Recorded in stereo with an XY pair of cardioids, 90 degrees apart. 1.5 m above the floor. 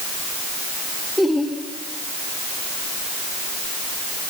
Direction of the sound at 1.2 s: 10° left.